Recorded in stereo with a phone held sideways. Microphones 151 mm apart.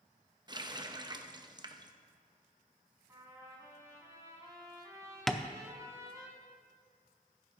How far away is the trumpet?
About 2.5 m.